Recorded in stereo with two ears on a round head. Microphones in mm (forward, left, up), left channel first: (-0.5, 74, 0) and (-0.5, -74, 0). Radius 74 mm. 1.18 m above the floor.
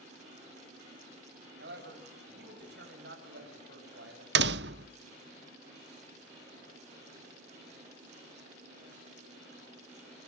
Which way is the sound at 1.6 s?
70° right (ahead or behind).